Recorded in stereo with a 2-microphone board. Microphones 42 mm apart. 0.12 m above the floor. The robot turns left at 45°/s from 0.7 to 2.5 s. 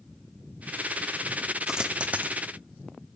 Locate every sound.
1.7 s a dropped coin: 15° right (ahead or behind), 1.2 m; by 2.3 s 45° right (ahead or behind), 1.2 m